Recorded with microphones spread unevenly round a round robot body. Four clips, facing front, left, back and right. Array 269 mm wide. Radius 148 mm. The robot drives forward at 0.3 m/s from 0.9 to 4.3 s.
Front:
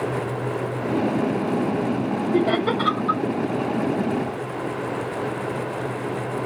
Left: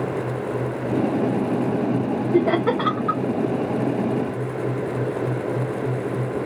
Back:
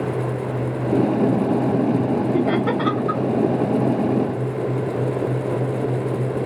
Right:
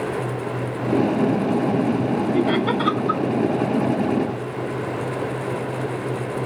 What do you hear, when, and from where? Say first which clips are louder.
2.3 s laughter: left 4 dB, back 1 dB; 80° left, 2 m; by 3.2 s 90° left, 2 m